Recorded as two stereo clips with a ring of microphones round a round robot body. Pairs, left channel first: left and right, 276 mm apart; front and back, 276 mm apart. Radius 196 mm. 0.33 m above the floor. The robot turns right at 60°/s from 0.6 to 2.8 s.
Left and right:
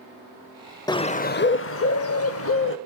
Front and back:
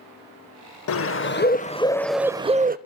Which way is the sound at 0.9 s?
15° left.